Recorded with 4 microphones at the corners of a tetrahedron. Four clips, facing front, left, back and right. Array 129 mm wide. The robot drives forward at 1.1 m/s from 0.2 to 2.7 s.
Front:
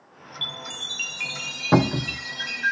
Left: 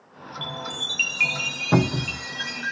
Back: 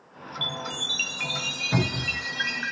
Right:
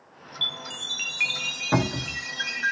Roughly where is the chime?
Ahead left.